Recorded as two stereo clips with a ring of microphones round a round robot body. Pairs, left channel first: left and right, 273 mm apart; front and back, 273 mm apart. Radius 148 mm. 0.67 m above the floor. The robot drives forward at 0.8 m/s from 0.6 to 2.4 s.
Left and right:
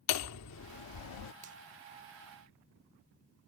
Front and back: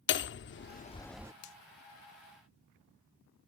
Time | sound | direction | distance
0.1 | hammering | 50° left | ?
1.4 | a finger snap | 30° right | ?